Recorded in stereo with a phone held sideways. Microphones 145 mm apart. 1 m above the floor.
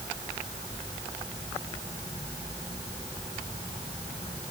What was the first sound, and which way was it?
Only background noise.